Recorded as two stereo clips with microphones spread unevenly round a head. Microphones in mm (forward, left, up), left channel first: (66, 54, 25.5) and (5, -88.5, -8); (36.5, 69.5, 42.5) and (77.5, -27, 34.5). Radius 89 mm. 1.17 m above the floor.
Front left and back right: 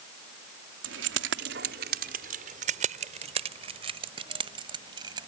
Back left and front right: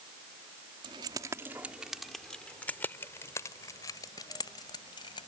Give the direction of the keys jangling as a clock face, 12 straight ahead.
4 o'clock.